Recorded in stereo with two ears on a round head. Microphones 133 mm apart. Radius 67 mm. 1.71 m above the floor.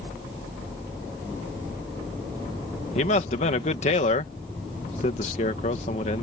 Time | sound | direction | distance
3.0 | a man speaking | 45° left (ahead or behind) | ?